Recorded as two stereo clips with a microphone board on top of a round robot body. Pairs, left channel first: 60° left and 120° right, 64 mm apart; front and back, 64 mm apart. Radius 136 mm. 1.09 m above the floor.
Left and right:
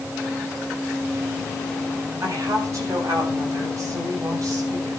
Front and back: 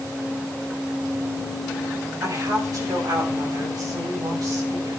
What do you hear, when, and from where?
2.2 s a woman speaking: 155° right, 8.5 m